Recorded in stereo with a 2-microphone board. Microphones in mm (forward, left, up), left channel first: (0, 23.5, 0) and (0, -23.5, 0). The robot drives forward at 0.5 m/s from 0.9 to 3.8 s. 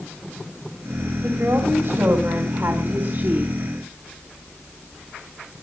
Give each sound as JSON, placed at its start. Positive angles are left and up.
{"t": 1.2, "sound": "a woman speaking", "side_deg": -70, "distance_m": 3.0}